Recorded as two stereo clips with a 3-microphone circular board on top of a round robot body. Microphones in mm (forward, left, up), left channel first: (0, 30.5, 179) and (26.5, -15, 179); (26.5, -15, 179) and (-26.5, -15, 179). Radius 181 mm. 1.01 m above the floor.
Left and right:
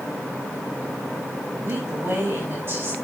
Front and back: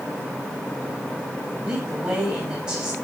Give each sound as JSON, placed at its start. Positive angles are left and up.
{"t": 1.6, "sound": "a woman speaking", "azimuth_deg": -105, "distance_m": 8.0}